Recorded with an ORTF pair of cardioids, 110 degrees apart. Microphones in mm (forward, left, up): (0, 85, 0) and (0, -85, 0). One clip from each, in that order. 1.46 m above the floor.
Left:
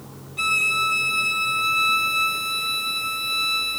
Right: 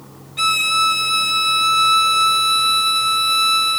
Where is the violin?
35° right, 0.8 m.